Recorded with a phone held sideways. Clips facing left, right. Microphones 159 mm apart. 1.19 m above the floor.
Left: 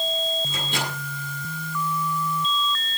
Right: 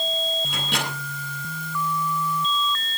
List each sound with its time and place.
0.5 s a microwave: 75° right (ahead or behind), 9.5 m